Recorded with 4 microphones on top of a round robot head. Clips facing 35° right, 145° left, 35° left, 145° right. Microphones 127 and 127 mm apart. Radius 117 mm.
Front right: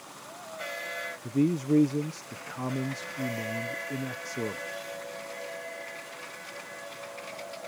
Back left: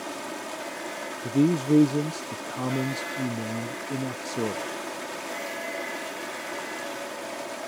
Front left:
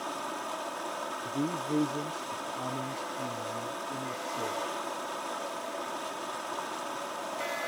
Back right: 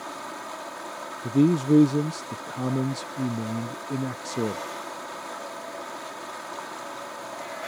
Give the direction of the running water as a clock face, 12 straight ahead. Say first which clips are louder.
Back left 11 dB, even; 8 o'clock.